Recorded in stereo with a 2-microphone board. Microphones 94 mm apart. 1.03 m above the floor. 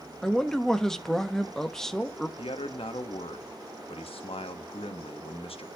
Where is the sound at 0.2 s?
5° left (ahead or behind), 0.9 m.